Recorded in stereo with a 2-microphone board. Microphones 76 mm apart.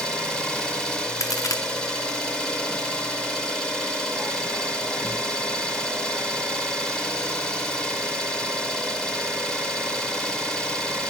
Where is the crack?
45° left (ahead or behind), 0.6 m.